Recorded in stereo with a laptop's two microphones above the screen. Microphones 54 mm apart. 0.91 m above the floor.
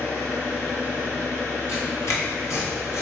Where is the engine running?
50° left (ahead or behind), 1.4 m.